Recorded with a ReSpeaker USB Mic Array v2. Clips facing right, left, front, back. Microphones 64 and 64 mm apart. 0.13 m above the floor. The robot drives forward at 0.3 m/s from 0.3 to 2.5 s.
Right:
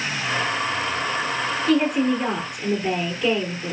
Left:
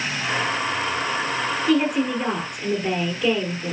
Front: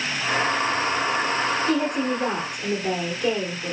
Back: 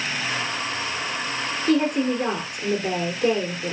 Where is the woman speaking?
175° left, 1.9 m.